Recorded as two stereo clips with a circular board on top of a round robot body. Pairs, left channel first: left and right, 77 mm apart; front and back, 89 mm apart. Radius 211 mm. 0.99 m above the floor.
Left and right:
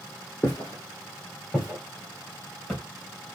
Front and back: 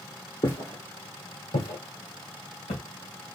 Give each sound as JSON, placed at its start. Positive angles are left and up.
{"t": 0.4, "sound": "footsteps", "azimuth_deg": 30, "distance_m": 1.0}